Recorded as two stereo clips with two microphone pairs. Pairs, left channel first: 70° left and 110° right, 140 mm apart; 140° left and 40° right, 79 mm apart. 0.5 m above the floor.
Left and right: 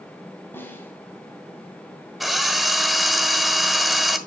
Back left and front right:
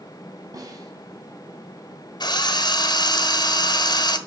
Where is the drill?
160° left, 1.6 m.